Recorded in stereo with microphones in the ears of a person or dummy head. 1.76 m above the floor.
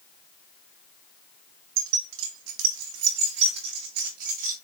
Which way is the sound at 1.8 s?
75° right (ahead or behind).